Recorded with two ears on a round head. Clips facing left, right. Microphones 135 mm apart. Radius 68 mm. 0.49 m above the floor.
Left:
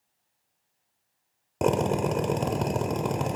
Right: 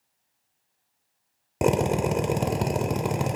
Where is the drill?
10° right (ahead or behind), 0.9 m.